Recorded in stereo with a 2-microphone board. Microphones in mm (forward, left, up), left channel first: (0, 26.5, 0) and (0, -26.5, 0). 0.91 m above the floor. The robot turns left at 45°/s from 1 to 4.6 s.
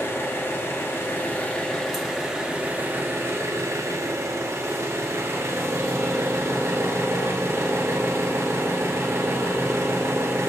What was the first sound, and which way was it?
An engine running, 50° left.